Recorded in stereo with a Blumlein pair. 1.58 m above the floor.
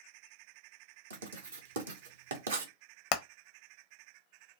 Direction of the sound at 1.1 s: 70° right.